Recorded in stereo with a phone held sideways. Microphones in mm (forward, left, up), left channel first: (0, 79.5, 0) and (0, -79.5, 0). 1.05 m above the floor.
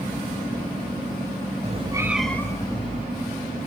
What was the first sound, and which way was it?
A cat meowing, 45° right (ahead or behind).